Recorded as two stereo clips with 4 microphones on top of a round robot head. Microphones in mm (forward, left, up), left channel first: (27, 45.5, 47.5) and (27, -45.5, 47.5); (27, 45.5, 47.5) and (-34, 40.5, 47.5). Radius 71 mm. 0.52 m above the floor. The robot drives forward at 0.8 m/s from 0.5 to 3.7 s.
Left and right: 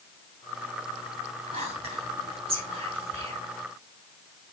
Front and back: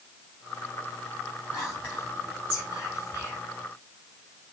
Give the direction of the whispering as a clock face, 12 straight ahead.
3 o'clock.